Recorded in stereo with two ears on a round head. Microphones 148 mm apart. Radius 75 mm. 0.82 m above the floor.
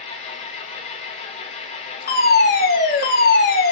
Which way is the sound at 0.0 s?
40° left (ahead or behind).